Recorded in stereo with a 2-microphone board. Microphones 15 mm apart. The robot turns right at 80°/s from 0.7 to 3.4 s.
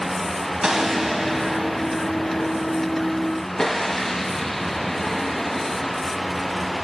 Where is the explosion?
60° right, 1.1 m; by 6.0 s 155° left, 1.1 m.